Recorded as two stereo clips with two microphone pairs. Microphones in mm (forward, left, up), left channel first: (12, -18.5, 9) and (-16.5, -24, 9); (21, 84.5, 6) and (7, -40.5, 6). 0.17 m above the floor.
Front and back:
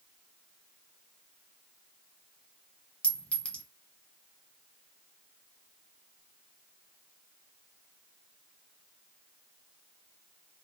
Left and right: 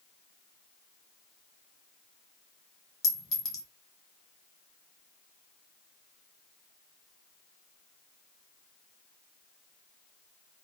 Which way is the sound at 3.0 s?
35° left.